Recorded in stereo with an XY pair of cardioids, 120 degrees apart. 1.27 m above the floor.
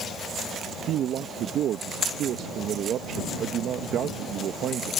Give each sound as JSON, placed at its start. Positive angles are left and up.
{"t": 0.8, "sound": "a man speaking", "azimuth_deg": -60}